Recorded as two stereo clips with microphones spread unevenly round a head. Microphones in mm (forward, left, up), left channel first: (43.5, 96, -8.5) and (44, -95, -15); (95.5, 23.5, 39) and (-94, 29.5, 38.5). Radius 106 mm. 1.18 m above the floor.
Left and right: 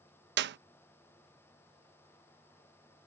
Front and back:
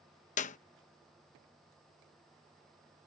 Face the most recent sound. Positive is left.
turn(degrees=-60)